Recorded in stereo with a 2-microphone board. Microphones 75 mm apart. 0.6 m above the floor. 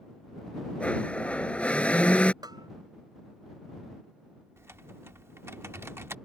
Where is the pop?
No pop in this recording.